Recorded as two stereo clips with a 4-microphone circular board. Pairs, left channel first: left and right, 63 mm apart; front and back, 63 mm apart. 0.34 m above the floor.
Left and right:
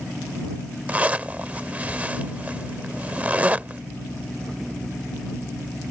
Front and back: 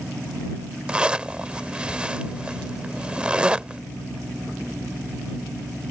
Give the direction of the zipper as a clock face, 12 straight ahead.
4 o'clock.